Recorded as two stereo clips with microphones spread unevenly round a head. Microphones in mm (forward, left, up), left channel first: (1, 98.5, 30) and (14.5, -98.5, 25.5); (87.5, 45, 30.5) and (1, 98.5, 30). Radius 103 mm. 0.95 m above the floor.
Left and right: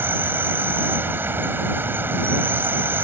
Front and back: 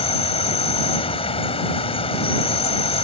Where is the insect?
5° right.